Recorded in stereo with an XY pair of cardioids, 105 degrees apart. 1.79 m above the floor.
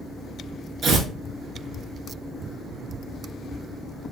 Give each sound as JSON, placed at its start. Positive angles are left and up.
{"t": 0.8, "sound": "tearing paper", "azimuth_deg": -65, "distance_m": 1.7}